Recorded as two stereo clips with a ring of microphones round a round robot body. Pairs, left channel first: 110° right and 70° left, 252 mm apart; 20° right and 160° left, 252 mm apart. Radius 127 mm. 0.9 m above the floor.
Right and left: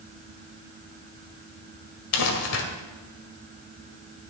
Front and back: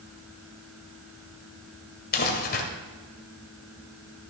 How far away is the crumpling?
About 1.9 m.